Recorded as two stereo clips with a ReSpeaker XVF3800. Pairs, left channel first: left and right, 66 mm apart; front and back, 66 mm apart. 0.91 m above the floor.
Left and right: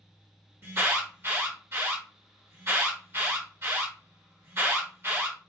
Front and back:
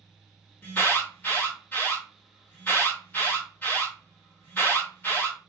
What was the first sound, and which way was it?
An alarm, 50° right.